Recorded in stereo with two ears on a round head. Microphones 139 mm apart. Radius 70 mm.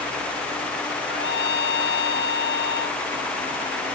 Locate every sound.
1.1 s a trumpet: 80° left